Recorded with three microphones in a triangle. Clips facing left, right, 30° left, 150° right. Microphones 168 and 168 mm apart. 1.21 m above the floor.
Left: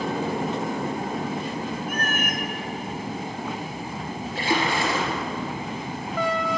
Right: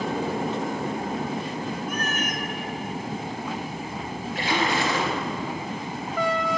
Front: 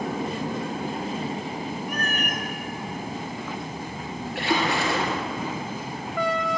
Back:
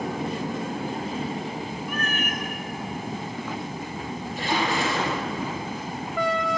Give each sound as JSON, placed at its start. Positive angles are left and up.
{"t": 1.9, "sound": "a cat meowing", "azimuth_deg": 70, "distance_m": 1.0}
{"t": 4.3, "sound": "a splash", "azimuth_deg": 30, "distance_m": 3.5}